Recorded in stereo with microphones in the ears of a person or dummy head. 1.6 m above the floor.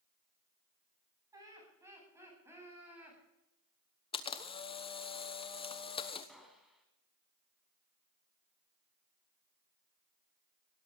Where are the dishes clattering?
No dishes clattering in this recording.